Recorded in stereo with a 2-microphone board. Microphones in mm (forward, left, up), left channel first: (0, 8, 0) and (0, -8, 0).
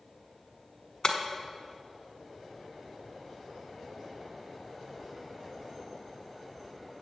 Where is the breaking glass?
50° left (ahead or behind), 1.1 m.